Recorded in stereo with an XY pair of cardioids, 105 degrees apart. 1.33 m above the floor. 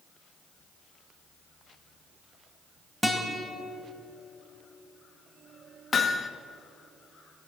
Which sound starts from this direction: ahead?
A guitar, at 3.0 s.